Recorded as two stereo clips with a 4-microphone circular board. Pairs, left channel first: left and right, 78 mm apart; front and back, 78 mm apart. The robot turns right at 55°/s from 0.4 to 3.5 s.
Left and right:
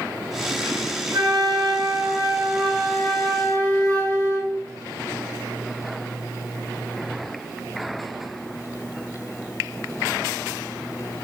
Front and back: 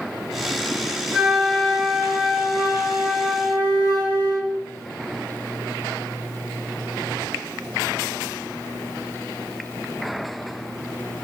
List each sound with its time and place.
1.1 s a flute: 105° right, 1.6 m; by 4.5 s 25° left, 1.6 m